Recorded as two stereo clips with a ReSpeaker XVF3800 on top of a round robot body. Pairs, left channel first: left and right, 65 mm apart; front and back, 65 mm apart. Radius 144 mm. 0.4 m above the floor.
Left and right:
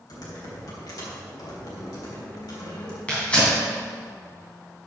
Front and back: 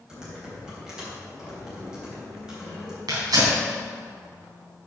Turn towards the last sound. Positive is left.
turn(degrees=165)